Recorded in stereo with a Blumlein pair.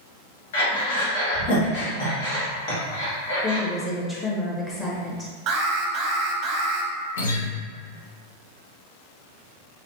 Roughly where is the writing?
I don't hear writing.